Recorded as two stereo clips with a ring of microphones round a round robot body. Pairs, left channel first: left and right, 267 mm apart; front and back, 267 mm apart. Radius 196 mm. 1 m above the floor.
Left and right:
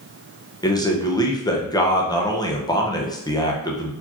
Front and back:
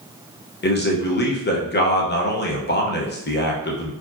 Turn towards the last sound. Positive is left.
turn(degrees=20)